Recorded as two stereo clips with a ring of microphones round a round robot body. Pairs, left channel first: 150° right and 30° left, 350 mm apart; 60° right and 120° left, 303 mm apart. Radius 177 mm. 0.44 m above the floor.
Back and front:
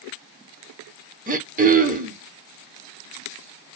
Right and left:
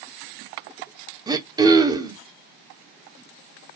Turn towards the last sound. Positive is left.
turn(degrees=60)